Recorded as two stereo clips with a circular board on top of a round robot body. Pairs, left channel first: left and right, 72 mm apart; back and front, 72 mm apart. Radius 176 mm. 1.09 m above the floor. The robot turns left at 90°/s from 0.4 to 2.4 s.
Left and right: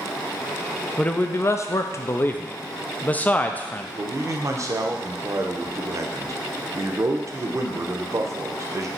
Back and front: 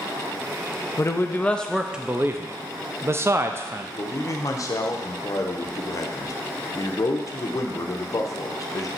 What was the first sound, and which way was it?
A man speaking, 160° left.